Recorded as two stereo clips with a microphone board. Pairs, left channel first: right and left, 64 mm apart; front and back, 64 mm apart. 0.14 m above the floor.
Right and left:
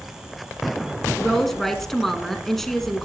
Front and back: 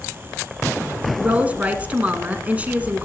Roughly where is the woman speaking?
Behind.